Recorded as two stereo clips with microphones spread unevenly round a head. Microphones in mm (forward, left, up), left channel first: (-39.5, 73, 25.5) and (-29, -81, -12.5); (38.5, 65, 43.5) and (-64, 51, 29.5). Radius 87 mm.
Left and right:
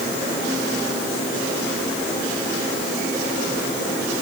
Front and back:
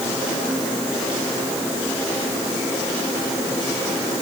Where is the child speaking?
No child speaking in this recording.